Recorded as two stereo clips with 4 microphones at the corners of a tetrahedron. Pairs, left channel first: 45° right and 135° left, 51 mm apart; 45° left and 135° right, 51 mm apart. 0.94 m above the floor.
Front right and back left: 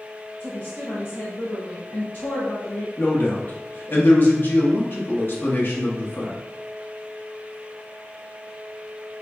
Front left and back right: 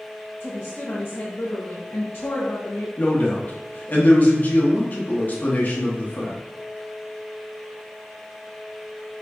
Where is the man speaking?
5° right, 1.2 m.